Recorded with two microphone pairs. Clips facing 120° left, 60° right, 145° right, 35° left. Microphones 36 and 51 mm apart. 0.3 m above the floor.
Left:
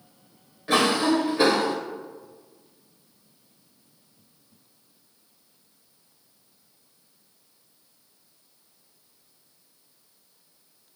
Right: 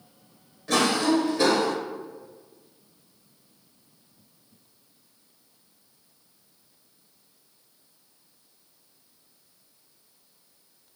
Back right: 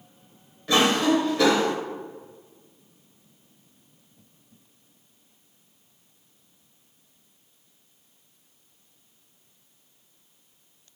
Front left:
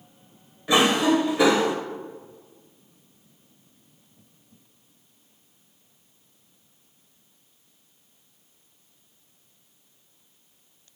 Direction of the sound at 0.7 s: 90° left.